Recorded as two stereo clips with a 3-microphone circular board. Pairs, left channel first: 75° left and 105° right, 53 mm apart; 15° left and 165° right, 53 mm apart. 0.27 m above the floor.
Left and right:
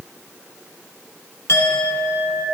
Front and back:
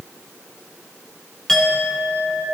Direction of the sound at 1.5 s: 95° left.